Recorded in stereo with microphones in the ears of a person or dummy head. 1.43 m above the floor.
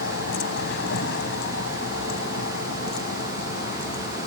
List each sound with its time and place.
0.0 s a vehicle: 75° left (ahead or behind); by 4.3 s 50° left (ahead or behind)